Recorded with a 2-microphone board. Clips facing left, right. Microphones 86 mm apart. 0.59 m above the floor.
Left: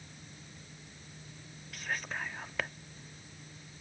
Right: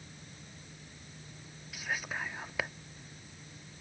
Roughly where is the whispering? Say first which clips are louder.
Right 1 dB; centre.